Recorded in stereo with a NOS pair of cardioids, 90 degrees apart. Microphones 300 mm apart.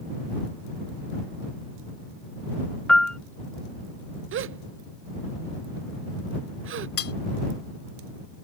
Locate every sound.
2.9 s a piano: straight ahead
4.3 s a gasp: 45° right
7.0 s cutlery clinking: 50° left